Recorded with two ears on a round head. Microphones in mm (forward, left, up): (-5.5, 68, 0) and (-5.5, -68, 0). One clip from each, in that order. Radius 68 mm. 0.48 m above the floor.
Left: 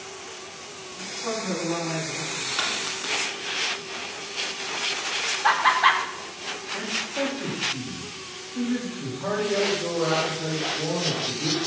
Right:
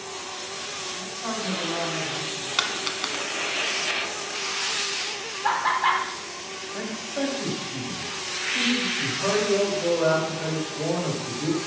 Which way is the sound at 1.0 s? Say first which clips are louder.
Left 5 dB; 25° right (ahead or behind).